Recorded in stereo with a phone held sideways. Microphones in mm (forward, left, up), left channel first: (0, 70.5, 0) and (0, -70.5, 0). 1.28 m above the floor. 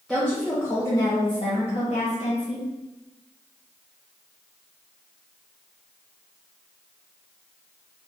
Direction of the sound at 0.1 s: 5° left (ahead or behind).